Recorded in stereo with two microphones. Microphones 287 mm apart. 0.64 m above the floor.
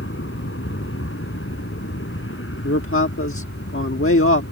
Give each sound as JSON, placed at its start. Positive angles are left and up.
{"t": 0.0, "sound": "an aircraft", "side_deg": 50}
{"t": 2.6, "sound": "a man speaking", "side_deg": 50}